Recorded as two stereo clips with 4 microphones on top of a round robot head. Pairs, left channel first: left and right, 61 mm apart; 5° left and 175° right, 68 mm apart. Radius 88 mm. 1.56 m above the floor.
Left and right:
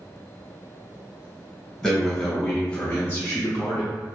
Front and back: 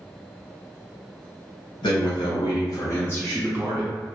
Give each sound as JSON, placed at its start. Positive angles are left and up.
{"t": 1.8, "sound": "a man speaking", "azimuth_deg": 0, "distance_m": 1.0}